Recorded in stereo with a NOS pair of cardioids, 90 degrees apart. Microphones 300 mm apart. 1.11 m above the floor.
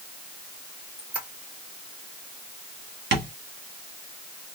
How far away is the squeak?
About 1.9 m.